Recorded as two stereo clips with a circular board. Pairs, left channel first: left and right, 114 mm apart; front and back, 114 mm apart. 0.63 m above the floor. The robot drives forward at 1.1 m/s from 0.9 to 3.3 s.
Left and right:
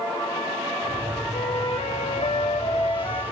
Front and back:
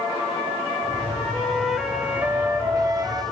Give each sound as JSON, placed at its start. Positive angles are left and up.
{"t": 1.3, "sound": "a flute", "azimuth_deg": 80, "distance_m": 2.5}